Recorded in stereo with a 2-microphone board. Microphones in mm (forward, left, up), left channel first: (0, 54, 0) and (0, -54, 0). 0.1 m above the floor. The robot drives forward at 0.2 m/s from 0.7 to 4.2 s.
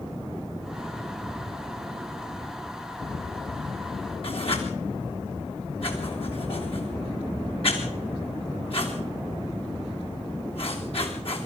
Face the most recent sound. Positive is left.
turn(degrees=60)  # may be behind; listen again after turning